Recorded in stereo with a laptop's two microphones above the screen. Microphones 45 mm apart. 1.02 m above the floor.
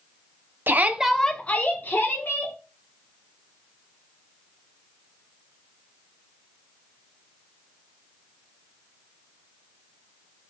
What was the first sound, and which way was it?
A shout, 50° right (ahead or behind).